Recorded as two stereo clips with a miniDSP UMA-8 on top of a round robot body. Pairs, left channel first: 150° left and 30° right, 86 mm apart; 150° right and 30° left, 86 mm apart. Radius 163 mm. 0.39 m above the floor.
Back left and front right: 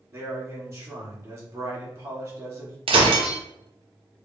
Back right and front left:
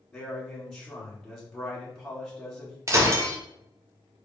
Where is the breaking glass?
25° right, 0.7 m.